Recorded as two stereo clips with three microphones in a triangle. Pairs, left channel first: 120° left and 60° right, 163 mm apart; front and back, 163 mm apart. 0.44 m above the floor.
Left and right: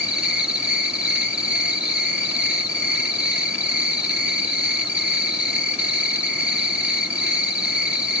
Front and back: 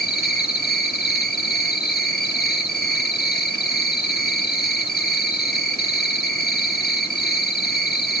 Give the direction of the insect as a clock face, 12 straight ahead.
11 o'clock.